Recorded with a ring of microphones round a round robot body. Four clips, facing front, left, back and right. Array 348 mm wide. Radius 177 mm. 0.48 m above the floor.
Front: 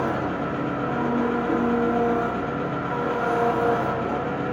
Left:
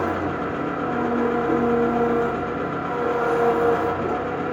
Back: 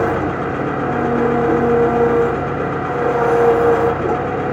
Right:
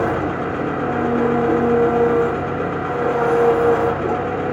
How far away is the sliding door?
I don't hear a sliding door.